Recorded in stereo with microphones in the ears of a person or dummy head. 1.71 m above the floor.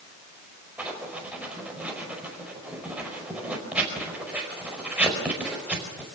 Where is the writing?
Centre (ahead or behind), 4.5 m.